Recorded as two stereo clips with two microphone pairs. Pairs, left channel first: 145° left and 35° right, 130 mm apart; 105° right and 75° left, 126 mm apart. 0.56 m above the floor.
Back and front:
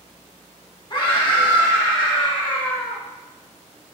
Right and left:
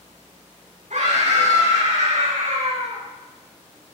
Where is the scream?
95° left, 5.5 m.